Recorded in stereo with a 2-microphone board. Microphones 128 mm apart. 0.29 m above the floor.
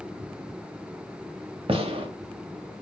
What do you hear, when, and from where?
1.7 s a gunshot: 45° right (ahead or behind), 0.6 m